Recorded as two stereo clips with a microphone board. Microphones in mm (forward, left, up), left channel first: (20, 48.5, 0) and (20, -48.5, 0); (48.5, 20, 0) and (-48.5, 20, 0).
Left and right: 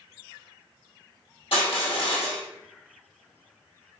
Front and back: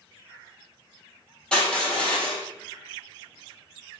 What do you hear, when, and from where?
1.5 s crushing: 80° left, 1.8 m